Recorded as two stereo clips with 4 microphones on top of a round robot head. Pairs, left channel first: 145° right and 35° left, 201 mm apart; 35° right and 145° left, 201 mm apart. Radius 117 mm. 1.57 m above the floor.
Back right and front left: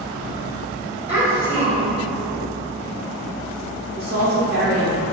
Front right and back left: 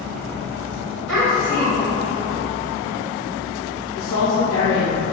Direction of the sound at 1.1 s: 135° left.